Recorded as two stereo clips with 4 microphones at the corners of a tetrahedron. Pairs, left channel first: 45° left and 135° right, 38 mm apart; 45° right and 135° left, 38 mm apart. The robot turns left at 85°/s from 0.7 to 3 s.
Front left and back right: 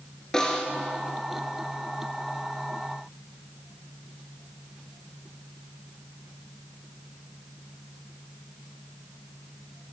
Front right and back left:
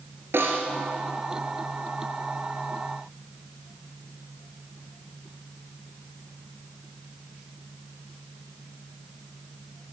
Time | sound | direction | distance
0.3 | a snare drum | 120° left | 1.8 m